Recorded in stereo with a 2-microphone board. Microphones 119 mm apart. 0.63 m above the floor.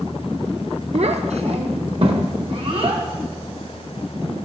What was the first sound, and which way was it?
A child speaking, 65° right (ahead or behind).